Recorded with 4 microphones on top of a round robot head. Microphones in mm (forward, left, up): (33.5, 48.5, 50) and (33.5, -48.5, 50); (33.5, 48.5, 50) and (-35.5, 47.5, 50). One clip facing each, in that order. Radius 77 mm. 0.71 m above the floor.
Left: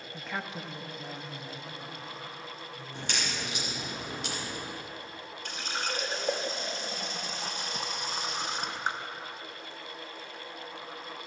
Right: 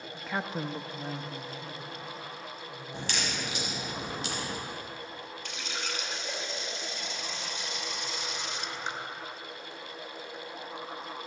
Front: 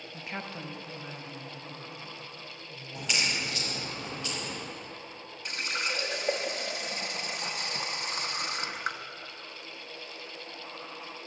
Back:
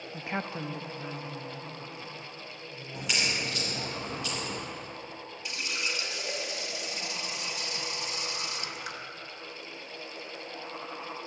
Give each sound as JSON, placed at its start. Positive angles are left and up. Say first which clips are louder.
{"t": 0.1, "sound": "a woman speaking", "louder": "right 4 dB, back 5 dB", "azimuth_deg": 135, "distance_m": 0.5}
{"t": 2.9, "sound": "a crack", "louder": "right 1 dB, even", "azimuth_deg": -95, "distance_m": 3.0}
{"t": 5.5, "sound": "a running tap", "louder": "left 5 dB, front 2 dB", "azimuth_deg": 45, "distance_m": 0.8}